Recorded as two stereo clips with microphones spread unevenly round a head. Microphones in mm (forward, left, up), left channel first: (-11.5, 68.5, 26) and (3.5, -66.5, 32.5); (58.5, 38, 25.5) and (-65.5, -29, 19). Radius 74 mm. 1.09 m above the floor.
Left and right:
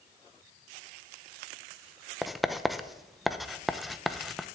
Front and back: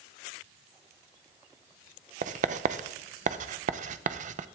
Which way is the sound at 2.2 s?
175° right.